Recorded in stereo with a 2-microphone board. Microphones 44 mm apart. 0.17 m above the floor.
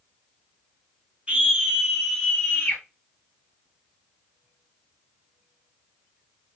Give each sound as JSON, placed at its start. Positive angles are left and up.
{"t": 1.3, "sound": "a scream", "side_deg": -25, "distance_m": 1.7}